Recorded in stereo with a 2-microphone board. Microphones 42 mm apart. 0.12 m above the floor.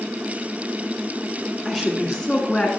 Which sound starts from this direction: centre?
A woman speaking, at 1.6 s.